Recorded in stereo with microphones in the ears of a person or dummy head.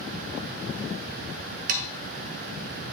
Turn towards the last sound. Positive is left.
turn(degrees=-45)  # may be behind; listen again after turning